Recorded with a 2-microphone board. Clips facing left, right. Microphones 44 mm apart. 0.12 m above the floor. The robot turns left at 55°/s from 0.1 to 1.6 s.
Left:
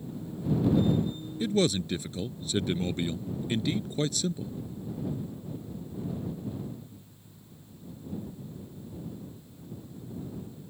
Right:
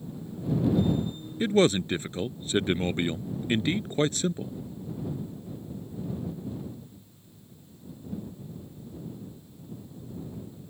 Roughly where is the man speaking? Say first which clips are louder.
Right 4 dB; right.